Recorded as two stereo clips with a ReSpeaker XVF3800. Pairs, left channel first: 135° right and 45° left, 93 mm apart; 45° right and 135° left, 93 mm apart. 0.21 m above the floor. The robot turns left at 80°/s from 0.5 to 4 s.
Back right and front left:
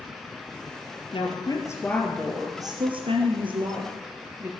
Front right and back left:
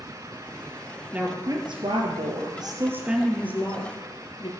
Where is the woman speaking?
145° right, 3.5 m; by 4.5 s 15° right, 3.5 m.